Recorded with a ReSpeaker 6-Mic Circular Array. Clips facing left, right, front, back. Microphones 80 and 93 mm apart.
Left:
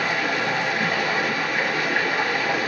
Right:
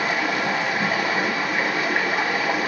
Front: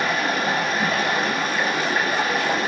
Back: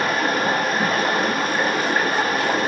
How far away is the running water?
About 1.2 m.